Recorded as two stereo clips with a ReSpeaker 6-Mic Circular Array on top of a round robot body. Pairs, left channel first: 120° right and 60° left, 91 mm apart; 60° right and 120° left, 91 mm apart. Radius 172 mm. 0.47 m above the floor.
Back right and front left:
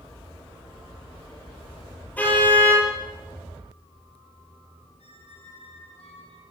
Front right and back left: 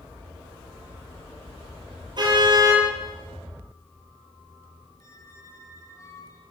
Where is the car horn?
165° left, 9.5 m.